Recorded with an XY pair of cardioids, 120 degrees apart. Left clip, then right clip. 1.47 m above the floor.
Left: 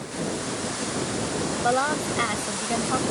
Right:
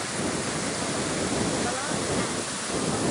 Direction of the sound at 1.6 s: 60° left.